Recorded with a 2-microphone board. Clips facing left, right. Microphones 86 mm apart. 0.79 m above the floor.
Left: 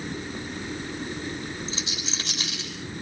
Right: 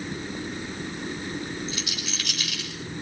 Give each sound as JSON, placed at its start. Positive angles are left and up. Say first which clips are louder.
{"t": 1.7, "sound": "a rattle", "louder": "even", "side_deg": 25, "distance_m": 7.0}